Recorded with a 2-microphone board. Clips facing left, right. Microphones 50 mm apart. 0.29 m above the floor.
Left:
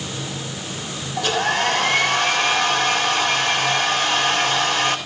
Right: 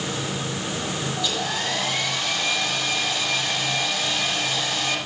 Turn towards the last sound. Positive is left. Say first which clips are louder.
# left 11 dB
turn(degrees=55)  # may be behind; listen again after turning